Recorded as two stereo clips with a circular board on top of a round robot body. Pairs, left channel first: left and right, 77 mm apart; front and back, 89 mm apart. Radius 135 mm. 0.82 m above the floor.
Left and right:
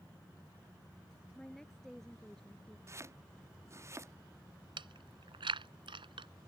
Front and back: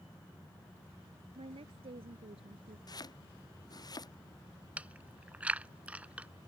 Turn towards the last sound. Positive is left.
turn(degrees=-105)